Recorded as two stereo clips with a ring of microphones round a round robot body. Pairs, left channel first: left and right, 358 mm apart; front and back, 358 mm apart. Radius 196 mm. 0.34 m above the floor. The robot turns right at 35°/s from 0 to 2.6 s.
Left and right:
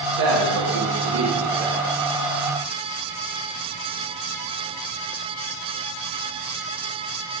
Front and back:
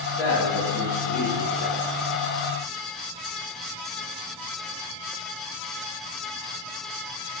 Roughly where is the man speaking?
Right.